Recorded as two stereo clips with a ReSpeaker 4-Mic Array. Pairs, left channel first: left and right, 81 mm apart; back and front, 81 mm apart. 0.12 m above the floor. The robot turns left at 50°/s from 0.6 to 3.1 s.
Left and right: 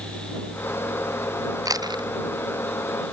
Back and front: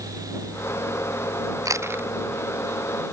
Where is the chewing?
45° right; by 2.1 s 65° right.